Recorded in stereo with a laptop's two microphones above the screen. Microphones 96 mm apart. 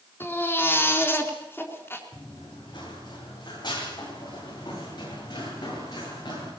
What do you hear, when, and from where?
0.2 s a baby crying: 20° left (ahead or behind), 4 m
2.1 s running footsteps: 55° left (ahead or behind), 8 m; by 6.5 s 50° left (ahead or behind), 11.5 m